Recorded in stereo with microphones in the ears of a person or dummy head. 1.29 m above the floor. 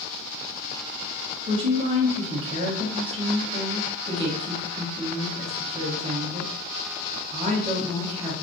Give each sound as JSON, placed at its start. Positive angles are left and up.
{"t": 1.5, "sound": "a woman speaking", "side_deg": -35, "distance_m": 1.1}